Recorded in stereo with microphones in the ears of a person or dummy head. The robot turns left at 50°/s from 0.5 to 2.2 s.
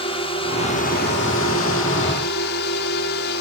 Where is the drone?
150° left; by 3.4 s 65° left.